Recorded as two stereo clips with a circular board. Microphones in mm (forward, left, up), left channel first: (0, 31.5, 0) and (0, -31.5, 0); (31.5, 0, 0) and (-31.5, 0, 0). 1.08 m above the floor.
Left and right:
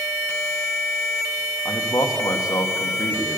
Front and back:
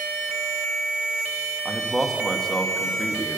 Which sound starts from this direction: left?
A man speaking, at 1.6 s.